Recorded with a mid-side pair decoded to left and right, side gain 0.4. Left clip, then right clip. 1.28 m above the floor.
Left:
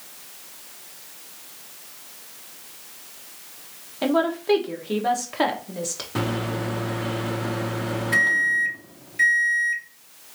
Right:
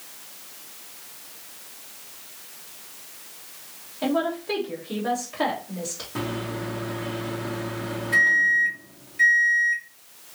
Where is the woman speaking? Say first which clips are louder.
Left 3 dB; 60° left, 1.1 m.